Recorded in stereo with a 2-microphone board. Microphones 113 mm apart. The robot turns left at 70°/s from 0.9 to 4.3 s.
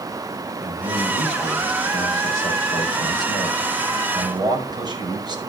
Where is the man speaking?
160° right, 5 m; by 5.4 s 35° right, 5 m.